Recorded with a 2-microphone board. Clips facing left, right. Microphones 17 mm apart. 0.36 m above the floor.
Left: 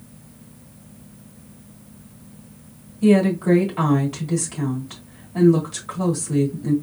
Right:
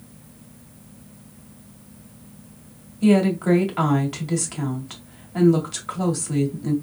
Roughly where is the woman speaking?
Centre.